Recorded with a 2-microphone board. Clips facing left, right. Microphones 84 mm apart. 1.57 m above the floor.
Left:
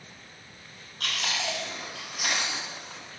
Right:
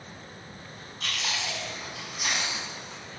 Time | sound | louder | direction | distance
1.0 | chewing | left 2 dB | 80° left | 4.5 m